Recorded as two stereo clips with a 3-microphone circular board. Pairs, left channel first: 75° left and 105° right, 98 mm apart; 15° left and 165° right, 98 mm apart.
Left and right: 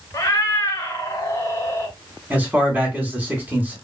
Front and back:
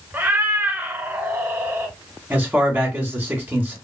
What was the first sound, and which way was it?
A cat meowing, 130° left.